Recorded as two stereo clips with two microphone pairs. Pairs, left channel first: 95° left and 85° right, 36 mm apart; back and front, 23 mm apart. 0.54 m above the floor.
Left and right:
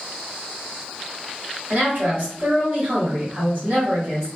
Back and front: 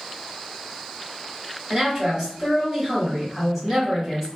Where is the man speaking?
55° right, 1.5 m.